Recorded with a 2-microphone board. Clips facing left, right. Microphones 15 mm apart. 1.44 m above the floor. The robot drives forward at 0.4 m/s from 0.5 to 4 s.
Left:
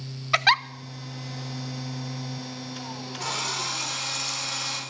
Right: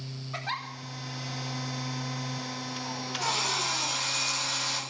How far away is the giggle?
About 0.7 m.